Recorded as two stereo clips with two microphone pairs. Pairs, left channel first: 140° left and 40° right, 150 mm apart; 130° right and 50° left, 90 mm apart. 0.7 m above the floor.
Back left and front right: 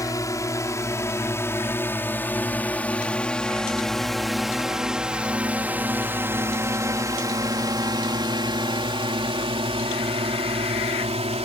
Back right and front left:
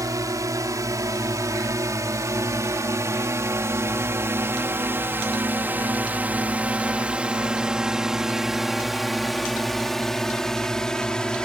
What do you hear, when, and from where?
0.0 s a drone: 85° left; by 11.4 s 55° right